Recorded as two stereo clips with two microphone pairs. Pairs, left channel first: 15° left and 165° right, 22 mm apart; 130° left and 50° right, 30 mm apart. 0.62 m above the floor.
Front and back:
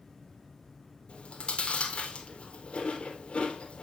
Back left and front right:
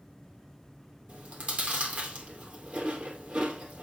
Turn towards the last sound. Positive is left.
turn(degrees=-15)